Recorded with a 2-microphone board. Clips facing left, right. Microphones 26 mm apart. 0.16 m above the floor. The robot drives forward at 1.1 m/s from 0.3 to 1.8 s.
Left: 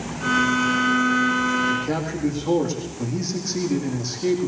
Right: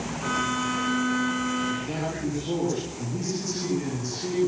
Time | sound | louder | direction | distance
1.7 | a man speaking | left 5 dB | 45° left (ahead or behind) | 9 m